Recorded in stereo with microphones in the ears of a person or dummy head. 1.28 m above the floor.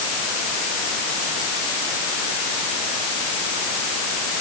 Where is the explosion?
No explosion in this recording.